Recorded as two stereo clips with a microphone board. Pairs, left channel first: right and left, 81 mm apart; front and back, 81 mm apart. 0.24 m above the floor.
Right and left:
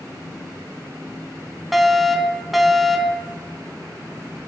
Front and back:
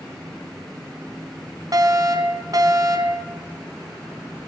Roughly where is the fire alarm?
Behind.